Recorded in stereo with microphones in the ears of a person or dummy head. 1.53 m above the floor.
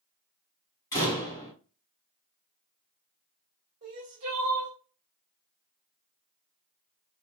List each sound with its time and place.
0.9 s a door slam: 20° left (ahead or behind), 2 m
3.8 s crying: 40° right (ahead or behind), 1.7 m